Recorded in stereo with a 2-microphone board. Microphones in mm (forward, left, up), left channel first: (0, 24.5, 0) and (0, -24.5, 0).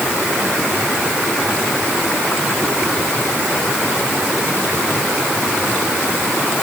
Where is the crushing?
I don't hear crushing.